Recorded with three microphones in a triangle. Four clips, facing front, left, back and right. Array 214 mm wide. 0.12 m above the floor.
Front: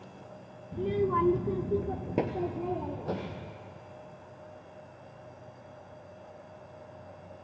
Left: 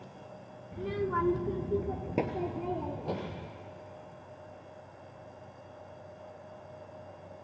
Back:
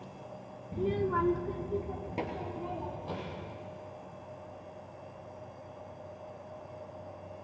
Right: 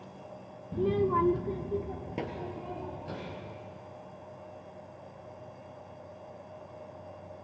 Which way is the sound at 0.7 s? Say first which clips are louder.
Right 5 dB, front 2 dB; 100° right.